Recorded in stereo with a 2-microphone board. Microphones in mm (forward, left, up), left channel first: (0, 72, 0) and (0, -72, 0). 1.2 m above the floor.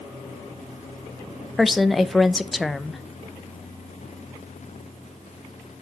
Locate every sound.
1.6 s a woman speaking: centre (ahead or behind), 0.5 m